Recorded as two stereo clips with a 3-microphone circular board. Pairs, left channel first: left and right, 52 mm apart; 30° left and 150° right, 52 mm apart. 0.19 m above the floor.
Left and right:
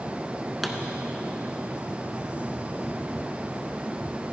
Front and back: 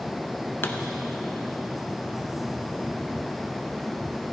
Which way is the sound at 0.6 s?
Straight ahead.